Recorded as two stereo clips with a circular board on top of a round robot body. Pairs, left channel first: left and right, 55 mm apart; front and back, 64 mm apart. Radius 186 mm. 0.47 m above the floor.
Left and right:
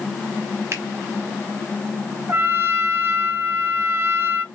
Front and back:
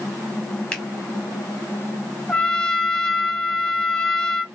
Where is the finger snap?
75° right, 1.8 m.